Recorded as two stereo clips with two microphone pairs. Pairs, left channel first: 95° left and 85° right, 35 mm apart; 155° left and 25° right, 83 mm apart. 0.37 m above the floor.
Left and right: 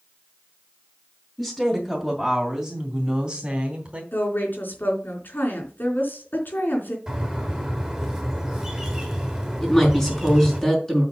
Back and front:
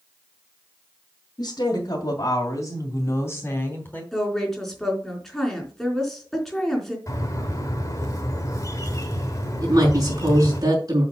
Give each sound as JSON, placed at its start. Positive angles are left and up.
{"t": 1.4, "sound": "a woman speaking", "azimuth_deg": 175, "distance_m": 3.0}
{"t": 4.1, "sound": "a woman speaking", "azimuth_deg": 70, "distance_m": 3.5}
{"t": 7.1, "sound": "a bird", "azimuth_deg": -160, "distance_m": 2.5}
{"t": 9.6, "sound": "a woman speaking", "azimuth_deg": 20, "distance_m": 5.0}